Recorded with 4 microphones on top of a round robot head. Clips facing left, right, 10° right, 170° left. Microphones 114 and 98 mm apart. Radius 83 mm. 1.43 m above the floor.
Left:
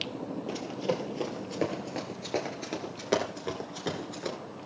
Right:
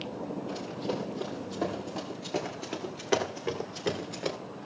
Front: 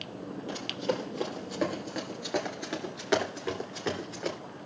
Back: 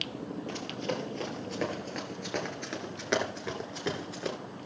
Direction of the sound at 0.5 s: 65° left.